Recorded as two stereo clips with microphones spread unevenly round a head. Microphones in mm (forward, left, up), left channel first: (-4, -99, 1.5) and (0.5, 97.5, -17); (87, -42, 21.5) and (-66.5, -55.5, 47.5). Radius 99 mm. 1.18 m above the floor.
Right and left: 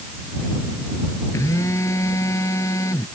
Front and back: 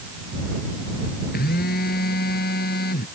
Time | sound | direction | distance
1.3 | a phone buzzing | 15° right | ?